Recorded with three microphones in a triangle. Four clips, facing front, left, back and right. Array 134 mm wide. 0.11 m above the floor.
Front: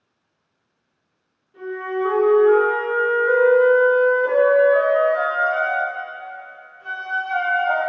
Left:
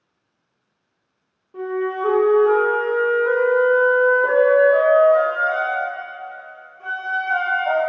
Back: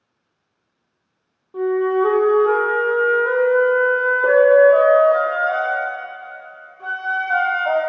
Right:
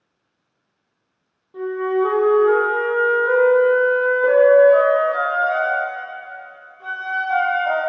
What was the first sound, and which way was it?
A flute, 170° left.